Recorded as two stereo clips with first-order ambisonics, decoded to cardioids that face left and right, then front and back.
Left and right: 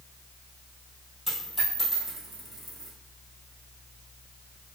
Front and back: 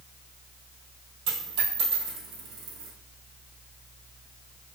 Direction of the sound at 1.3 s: 170° right.